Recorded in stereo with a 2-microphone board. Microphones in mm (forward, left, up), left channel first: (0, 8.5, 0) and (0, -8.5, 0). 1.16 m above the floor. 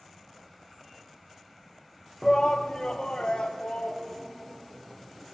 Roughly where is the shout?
Left.